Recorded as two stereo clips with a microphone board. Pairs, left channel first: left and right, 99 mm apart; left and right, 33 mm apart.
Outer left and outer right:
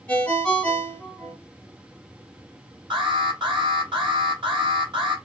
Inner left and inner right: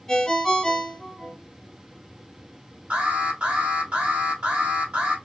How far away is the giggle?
I don't hear a giggle.